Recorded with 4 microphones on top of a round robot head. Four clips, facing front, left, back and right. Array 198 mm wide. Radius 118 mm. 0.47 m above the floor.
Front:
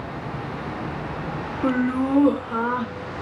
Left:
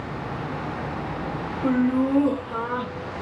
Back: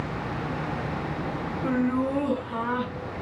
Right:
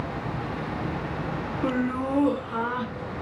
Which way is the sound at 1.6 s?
20° right.